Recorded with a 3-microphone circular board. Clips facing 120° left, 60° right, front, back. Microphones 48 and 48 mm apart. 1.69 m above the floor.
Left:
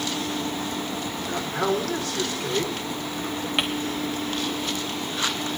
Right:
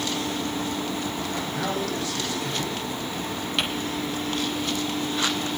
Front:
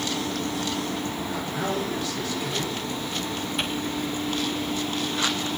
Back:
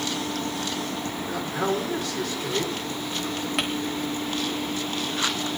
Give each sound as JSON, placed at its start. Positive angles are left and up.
{"t": 1.3, "sound": "a man speaking", "azimuth_deg": 150, "distance_m": 5.5}
{"t": 3.6, "sound": "crumpling", "azimuth_deg": -165, "distance_m": 2.5}